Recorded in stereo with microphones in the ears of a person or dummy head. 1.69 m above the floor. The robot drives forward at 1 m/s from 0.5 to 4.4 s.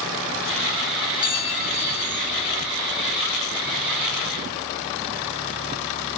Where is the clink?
30° left (ahead or behind); by 2.3 s 25° left (ahead or behind).